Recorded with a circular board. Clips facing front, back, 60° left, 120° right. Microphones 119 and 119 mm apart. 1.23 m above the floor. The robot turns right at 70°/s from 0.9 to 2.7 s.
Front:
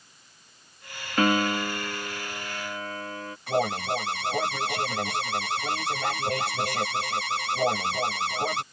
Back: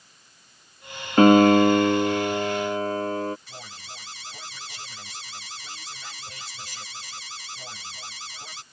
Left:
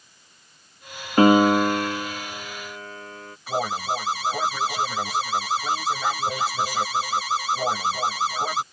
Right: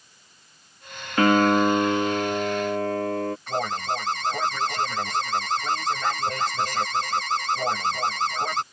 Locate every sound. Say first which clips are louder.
1.2 s a piano: back 10 dB, left 3 dB; 125° left; by 3.4 s 130° right
3.5 s an alarm: front 19 dB, left 1 dB; 25° right